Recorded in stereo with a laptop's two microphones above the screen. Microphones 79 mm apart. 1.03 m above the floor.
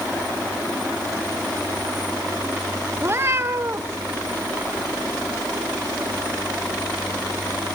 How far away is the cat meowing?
About 0.7 m.